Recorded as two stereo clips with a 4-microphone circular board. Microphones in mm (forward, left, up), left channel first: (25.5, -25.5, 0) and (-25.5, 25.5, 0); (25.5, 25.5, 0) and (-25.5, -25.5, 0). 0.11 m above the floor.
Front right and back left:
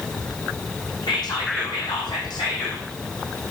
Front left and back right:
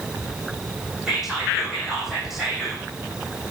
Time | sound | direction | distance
1.1 | whispering | 50° right | 5 m